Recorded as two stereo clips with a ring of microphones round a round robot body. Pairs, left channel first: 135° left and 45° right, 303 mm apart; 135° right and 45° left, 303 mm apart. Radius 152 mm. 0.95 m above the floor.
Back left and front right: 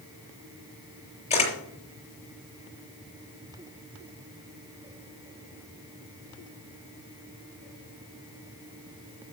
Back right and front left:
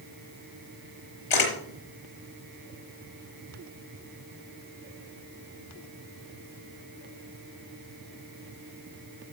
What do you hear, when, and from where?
1.3 s a camera shutter: 155° right, 5 m